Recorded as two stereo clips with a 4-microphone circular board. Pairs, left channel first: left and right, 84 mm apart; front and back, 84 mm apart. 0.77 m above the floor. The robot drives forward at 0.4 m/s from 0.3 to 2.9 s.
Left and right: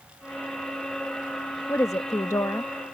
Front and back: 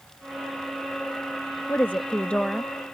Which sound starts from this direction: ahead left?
A woman speaking, at 1.7 s.